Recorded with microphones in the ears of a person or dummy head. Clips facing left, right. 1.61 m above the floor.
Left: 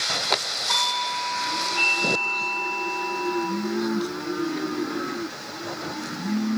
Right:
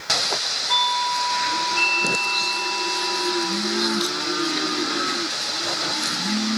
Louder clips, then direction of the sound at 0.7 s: Right 5 dB; 25° right (ahead or behind).